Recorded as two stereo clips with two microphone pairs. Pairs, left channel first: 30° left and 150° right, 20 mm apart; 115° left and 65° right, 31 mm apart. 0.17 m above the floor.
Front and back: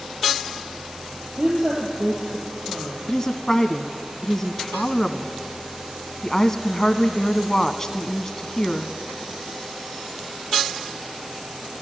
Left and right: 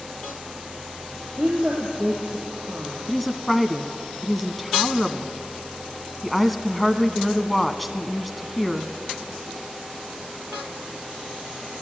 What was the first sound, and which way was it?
A woman speaking, 120° right.